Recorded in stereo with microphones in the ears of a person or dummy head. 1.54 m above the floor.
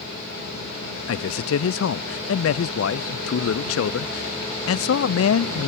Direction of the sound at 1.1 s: 75° left (ahead or behind).